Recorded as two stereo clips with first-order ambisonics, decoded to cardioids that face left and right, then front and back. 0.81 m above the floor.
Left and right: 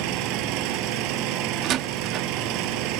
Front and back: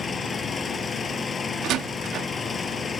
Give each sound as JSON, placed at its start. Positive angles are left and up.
{"t": 0.0, "sound": "an engine running", "azimuth_deg": -75}
{"t": 1.6, "sound": "a door slam", "azimuth_deg": -135}